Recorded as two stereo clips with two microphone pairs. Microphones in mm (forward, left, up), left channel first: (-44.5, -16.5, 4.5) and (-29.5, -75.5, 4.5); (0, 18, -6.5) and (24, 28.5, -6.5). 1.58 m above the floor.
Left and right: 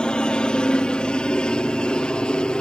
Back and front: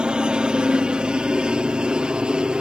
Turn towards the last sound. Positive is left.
turn(degrees=40)